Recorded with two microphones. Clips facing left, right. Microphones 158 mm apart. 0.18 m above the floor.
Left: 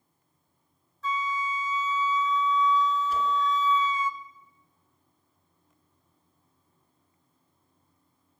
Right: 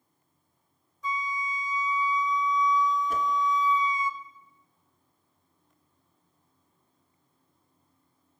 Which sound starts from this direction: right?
A whoosh, at 3.1 s.